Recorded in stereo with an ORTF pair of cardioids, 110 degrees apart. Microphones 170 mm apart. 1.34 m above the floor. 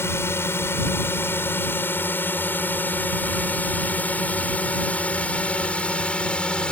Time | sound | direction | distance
0.0 | a drone | 15° left | ?